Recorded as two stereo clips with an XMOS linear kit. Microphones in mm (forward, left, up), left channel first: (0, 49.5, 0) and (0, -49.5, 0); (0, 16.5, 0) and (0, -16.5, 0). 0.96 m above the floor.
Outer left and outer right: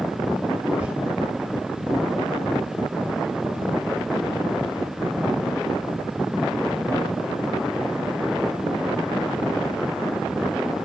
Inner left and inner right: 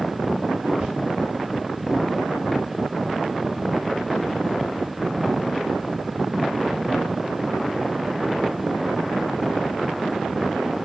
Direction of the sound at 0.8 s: 15° right (ahead or behind).